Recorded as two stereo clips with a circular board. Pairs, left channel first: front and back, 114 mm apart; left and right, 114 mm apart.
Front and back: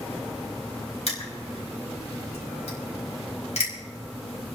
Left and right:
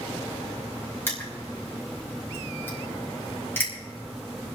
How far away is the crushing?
About 4.5 m.